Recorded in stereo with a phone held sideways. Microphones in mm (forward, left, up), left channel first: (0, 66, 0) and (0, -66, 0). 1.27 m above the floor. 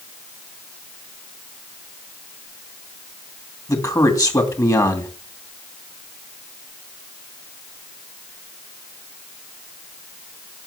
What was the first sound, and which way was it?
A man speaking, 25° left (ahead or behind).